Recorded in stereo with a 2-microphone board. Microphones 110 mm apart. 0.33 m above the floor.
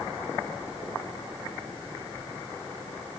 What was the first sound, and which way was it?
Only background noise.